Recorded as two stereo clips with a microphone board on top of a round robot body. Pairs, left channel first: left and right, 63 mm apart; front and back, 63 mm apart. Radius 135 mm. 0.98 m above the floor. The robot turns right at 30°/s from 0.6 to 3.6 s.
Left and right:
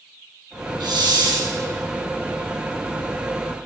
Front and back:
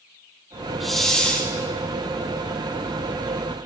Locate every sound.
0.8 s a hiss: 90° right, 3.5 m; by 1.5 s 70° right, 3.5 m